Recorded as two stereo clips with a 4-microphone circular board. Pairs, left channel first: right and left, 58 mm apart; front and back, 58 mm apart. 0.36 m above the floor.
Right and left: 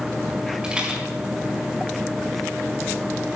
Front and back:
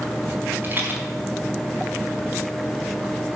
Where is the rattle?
160° left, 1.9 m.